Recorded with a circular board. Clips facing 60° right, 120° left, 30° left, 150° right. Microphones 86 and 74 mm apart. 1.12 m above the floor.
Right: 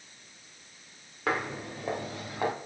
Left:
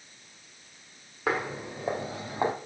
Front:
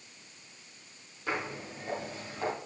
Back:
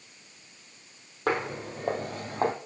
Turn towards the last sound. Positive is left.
turn(degrees=180)